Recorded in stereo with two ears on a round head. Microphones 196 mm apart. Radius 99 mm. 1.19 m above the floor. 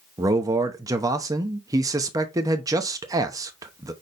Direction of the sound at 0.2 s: 15° right (ahead or behind).